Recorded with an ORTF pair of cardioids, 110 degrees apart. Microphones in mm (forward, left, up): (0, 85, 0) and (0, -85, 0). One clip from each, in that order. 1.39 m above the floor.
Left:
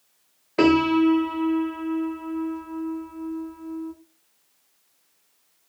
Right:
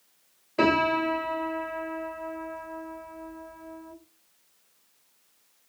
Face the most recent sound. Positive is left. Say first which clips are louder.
# left 4 dB
turn(degrees=30)